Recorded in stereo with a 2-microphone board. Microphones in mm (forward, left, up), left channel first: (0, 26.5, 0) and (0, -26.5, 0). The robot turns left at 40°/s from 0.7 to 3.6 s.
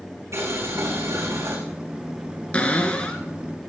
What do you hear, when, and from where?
0.3 s boiling: 75° right, 7 m; by 1.6 s 110° right, 7 m
2.5 s a cupboard door: 25° left (ahead or behind), 1.8 m; by 3.2 s 20° left (ahead or behind), 1.8 m